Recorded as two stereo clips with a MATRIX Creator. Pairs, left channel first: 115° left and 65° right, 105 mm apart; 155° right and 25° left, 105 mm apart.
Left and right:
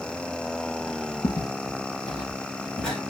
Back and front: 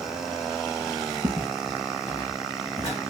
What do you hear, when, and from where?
1.2 s footsteps: 85° left, 1.2 m; by 3.0 s 165° right, 1.3 m